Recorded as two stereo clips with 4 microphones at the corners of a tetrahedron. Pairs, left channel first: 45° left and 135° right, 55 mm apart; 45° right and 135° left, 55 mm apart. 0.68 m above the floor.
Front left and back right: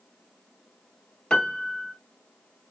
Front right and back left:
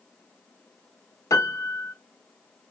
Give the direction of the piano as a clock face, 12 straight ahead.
1 o'clock.